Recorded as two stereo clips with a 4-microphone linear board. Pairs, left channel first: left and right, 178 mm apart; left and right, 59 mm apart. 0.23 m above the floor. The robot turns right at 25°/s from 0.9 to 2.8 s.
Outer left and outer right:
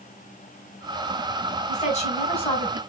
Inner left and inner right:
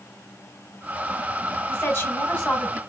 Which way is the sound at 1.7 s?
40° left (ahead or behind).